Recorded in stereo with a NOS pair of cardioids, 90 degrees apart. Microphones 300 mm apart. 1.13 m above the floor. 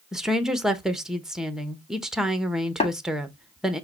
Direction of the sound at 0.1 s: Straight ahead.